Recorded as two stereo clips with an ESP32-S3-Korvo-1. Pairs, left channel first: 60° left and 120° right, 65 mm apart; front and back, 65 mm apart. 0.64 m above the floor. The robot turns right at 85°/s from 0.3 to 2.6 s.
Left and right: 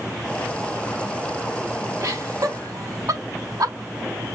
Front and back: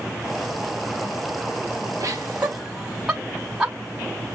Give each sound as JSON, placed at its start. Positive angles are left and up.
{"t": 2.0, "sound": "laughter", "azimuth_deg": -150, "distance_m": 3.5}